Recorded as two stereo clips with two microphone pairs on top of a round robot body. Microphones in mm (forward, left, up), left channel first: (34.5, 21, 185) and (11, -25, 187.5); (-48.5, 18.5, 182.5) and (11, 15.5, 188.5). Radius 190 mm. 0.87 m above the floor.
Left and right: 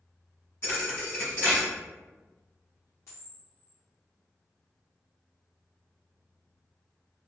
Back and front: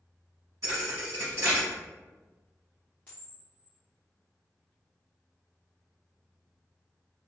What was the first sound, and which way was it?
A thud, 15° left.